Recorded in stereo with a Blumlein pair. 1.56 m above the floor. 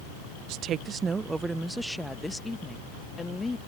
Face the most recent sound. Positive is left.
turn(degrees=10)